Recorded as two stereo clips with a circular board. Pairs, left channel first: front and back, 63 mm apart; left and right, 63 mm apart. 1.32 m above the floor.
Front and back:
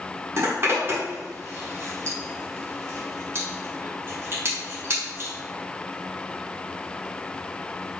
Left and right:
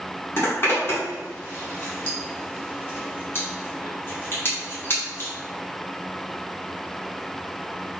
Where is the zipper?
135° left, 1.6 m.